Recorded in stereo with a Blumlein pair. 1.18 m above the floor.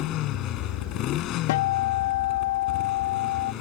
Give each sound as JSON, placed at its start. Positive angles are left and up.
{"t": 0.0, "sound": "a motorcycle", "azimuth_deg": 35}
{"t": 1.5, "sound": "a guitar", "azimuth_deg": 50}